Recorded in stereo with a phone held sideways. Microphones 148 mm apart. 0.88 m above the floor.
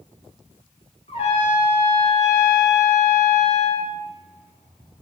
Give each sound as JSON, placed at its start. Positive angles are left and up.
{"t": 1.1, "sound": "a trumpet", "side_deg": 50, "distance_m": 2.0}